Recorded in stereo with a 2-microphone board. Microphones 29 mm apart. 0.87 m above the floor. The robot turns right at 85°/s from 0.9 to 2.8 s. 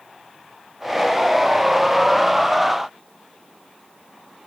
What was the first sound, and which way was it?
Only background noise.